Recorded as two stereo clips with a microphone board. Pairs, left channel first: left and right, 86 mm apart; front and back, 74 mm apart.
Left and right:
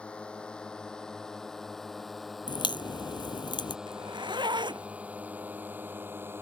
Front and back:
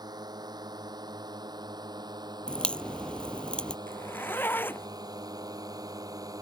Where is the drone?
165° left; by 6.4 s 150° right.